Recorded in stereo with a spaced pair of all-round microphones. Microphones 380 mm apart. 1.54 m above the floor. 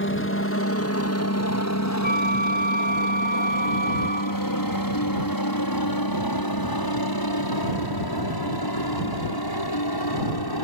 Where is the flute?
25° left (ahead or behind).